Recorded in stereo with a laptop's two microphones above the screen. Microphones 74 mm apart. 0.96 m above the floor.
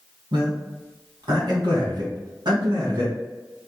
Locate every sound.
0.3 s a man speaking: 65° right (ahead or behind), 2 m